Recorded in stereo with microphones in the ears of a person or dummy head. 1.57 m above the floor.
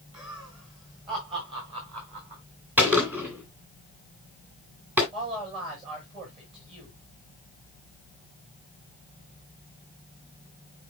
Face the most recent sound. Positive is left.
turn(degrees=-35)  # may be behind; listen again after turning